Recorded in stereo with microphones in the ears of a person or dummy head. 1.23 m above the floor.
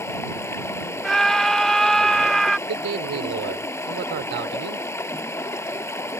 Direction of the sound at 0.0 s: 10° left (ahead or behind).